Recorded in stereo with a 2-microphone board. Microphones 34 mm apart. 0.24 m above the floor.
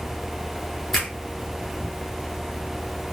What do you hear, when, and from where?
0.9 s a finger snap: 10° left (ahead or behind), 2.5 m